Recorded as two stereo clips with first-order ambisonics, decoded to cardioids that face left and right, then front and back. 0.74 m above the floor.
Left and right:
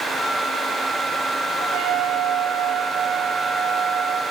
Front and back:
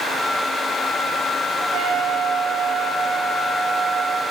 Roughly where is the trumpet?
Behind right.